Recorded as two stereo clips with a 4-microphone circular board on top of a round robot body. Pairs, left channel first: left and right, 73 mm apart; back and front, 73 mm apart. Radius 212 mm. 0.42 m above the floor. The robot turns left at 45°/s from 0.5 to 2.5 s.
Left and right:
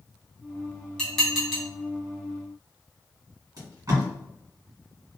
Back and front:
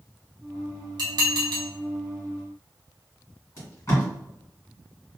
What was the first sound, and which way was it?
Dishes clattering, 10° left.